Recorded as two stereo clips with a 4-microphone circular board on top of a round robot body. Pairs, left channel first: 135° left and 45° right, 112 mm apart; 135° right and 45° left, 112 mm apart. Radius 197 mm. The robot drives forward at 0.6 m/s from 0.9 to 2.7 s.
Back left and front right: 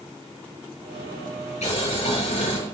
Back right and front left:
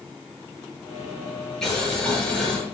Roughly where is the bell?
No bell in this recording.